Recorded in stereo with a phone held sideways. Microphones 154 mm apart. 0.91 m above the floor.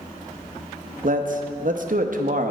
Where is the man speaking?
60° right (ahead or behind), 0.7 m.